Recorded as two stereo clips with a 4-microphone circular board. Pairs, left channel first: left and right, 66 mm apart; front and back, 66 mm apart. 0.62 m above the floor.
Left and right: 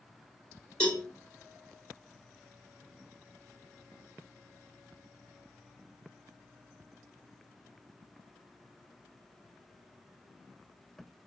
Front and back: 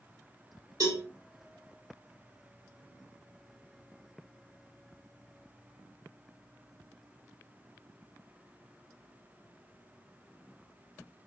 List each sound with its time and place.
0.8 s a cowbell: 165° left, 1.3 m